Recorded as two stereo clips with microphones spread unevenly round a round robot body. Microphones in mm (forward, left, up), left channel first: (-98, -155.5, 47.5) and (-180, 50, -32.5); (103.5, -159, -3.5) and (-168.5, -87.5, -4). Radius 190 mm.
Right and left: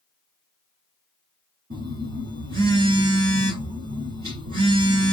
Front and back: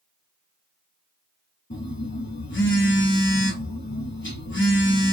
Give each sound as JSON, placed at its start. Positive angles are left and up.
{"t": 1.7, "sound": "a phone buzzing", "azimuth_deg": 50, "distance_m": 0.9}